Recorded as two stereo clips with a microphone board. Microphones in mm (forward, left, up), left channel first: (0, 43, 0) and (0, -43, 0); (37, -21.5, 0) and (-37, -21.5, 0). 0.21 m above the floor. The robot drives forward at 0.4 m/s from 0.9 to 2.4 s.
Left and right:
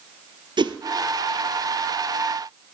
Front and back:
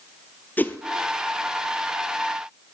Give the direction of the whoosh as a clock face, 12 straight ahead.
2 o'clock.